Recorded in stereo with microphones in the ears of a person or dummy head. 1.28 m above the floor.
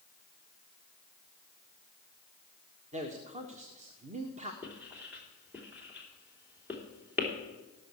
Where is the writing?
5° right (ahead or behind), 3 m.